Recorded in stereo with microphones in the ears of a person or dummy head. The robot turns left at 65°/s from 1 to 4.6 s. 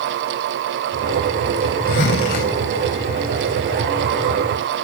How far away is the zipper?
About 3 m.